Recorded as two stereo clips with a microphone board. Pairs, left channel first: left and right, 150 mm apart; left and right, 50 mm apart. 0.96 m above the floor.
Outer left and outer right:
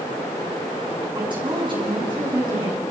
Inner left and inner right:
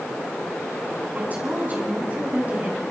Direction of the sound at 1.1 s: 35° right (ahead or behind).